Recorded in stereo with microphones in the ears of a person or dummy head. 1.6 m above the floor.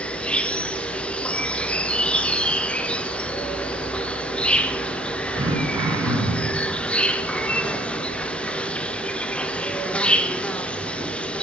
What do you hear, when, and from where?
0.0 s an insect: 5° left (ahead or behind), 0.8 m
5.4 s throat clearing: 20° right (ahead or behind), 2.5 m